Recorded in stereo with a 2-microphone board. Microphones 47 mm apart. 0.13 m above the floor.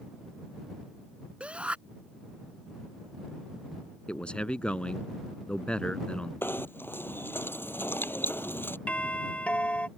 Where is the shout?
25° right (ahead or behind).